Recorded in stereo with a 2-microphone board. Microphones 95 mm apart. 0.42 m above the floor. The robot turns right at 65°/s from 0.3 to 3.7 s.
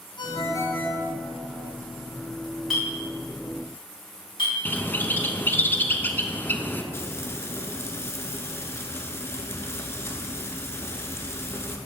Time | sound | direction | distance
0.2 | a ringtone | 125° left | 1.6 m
2.7 | a clink | centre (ahead or behind) | 2.5 m
4.7 | a bird | 20° left (ahead or behind) | 0.5 m
6.9 | frying | 25° left (ahead or behind) | 0.8 m